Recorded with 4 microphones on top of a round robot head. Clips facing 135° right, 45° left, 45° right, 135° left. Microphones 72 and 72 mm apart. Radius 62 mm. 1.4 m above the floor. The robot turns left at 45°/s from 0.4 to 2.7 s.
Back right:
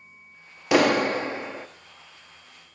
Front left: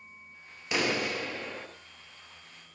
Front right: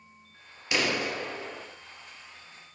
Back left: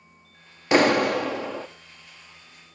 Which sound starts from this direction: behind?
A clap, at 0.7 s.